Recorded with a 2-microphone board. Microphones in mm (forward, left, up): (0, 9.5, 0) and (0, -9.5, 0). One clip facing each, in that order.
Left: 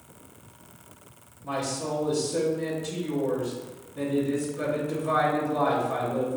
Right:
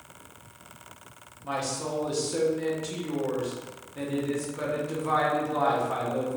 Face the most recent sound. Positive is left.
turn(degrees=-45)  # may be behind; listen again after turning